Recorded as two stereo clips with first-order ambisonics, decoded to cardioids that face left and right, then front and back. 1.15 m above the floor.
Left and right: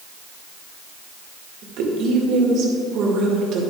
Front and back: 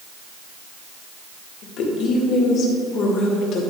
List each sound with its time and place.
1.6 s a woman speaking: 50° right, 2 m